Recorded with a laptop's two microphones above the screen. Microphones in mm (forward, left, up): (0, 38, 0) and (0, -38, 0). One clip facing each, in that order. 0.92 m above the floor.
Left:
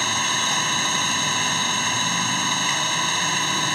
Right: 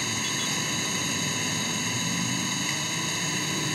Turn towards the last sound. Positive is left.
turn(degrees=70)  # may be behind; listen again after turning